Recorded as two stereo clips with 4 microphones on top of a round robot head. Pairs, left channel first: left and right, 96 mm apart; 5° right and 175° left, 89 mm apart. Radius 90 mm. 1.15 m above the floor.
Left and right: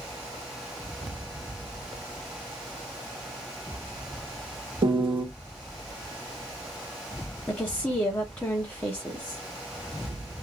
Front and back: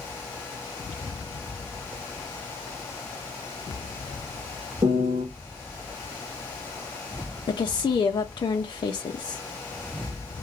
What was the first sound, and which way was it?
A piano, 125° right.